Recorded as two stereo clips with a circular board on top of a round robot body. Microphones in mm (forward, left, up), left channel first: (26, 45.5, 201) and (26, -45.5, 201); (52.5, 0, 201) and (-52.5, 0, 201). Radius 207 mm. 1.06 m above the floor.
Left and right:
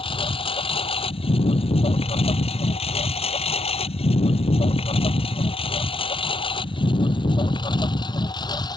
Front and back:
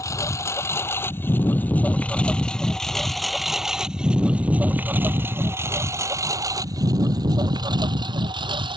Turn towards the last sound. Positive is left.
turn(degrees=135)